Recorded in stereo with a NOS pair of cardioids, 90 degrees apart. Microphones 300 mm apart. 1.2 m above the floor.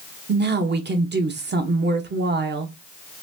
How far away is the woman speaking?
About 1.2 m.